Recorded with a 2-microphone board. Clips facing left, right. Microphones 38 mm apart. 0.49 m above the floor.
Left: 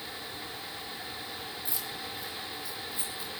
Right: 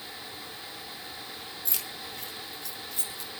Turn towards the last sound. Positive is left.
turn(degrees=-65)  # may be behind; listen again after turning